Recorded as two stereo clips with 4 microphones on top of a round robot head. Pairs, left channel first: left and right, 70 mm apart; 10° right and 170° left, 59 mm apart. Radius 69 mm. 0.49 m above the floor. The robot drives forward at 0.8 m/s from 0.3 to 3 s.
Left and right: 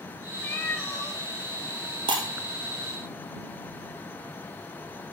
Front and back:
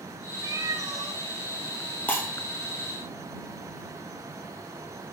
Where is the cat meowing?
160° left, 1.7 m; by 1.2 s 165° left, 2.5 m.